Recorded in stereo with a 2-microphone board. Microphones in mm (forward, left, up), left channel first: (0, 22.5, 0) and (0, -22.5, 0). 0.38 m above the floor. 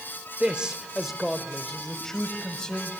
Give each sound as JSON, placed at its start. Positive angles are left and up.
{"t": 0.4, "sound": "a man speaking", "side_deg": -25, "distance_m": 1.1}